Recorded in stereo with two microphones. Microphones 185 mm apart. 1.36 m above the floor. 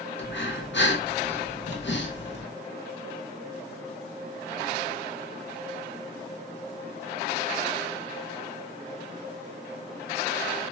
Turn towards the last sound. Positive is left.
turn(degrees=85)